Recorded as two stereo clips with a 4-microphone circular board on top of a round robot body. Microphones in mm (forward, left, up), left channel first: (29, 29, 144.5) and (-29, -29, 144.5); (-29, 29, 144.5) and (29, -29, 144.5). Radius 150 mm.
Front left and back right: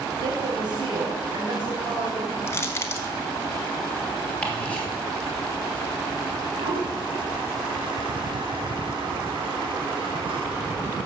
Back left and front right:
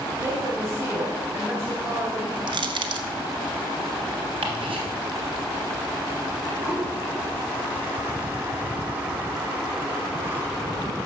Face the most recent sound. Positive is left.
turn(degrees=-115)